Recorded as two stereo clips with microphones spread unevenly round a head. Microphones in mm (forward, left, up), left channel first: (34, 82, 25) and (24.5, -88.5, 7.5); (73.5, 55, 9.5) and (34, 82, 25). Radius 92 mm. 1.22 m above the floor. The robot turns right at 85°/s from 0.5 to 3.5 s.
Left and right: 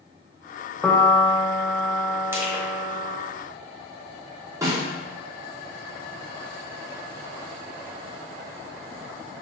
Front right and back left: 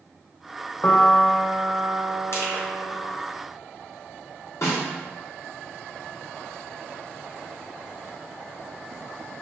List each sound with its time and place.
0.8 s a piano: straight ahead, 0.6 m; by 3.2 s 160° right, 0.6 m
2.3 s crushing: 20° right, 1.3 m; by 2.6 s 10° left, 1.3 m
4.6 s a snare drum: 20° right, 1.8 m